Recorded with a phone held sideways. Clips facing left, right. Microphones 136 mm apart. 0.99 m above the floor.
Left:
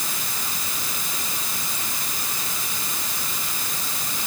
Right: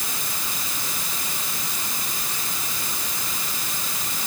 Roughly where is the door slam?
I don't hear a door slam.